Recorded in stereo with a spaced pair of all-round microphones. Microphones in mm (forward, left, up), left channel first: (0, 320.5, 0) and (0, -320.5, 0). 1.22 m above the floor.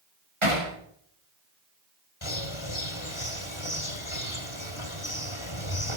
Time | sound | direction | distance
0.4 | hammering | 55° right (ahead or behind) | 7.5 m
2.2 | a bird | 50° left (ahead or behind) | 2 m